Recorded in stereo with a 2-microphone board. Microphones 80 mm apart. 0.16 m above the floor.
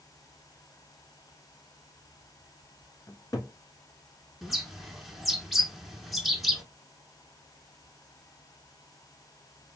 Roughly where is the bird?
Centre.